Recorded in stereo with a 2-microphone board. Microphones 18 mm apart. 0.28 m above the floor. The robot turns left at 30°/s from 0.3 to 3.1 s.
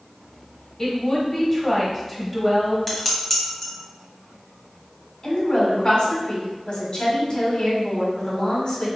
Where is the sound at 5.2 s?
55° left (ahead or behind), 1.8 m.